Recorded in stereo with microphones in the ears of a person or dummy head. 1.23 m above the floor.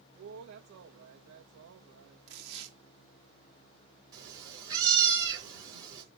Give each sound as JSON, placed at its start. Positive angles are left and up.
{"t": 0.2, "sound": "a woman speaking", "side_deg": -65, "distance_m": 1.1}
{"t": 2.3, "sound": "tearing paper", "side_deg": -60, "distance_m": 2.0}
{"t": 4.1, "sound": "a cat meowing", "side_deg": -20, "distance_m": 4.0}